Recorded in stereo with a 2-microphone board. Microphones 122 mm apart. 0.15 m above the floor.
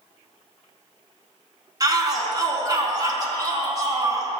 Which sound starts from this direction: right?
A shout, at 1.8 s.